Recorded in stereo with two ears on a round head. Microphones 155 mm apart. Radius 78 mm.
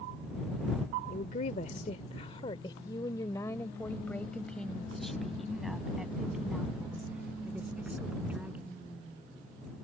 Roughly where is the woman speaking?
Left.